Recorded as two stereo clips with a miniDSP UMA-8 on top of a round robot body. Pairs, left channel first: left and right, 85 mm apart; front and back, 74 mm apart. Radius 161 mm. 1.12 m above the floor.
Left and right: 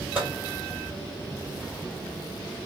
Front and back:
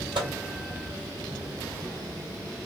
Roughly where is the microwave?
Behind.